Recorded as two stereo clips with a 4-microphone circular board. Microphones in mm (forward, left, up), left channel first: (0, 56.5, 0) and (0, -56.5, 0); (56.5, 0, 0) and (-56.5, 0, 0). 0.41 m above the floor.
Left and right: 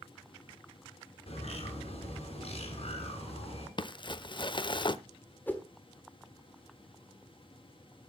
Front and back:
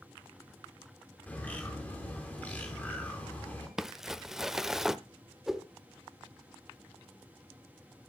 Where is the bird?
75° left, 4 m.